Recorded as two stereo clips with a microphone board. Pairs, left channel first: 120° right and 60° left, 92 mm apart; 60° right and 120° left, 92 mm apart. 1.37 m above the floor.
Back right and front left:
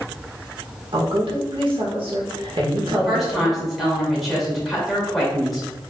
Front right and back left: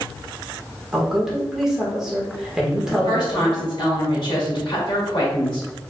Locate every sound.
0.9 s a woman speaking: 35° left, 1.4 m
2.9 s a woman speaking: 30° right, 2 m